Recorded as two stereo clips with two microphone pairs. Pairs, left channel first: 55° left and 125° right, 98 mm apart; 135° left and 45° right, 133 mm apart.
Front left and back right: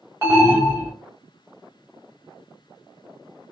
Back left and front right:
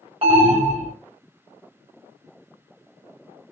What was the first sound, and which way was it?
An alarm, 70° right.